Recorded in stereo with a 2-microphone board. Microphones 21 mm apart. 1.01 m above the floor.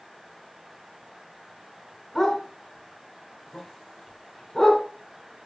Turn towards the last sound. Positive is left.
turn(degrees=25)  # may be behind; listen again after turning